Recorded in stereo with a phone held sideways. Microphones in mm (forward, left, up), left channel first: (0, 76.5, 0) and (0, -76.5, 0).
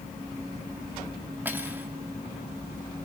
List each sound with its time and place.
1.4 s cutlery clinking: 10° right (ahead or behind), 1.3 m